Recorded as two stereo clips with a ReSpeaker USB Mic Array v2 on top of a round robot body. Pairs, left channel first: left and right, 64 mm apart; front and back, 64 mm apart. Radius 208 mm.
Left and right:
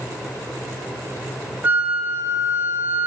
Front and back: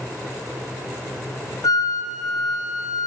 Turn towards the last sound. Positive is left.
turn(degrees=-25)